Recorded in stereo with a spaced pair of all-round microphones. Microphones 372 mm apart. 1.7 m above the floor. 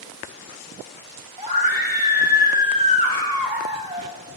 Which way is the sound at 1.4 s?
70° left (ahead or behind).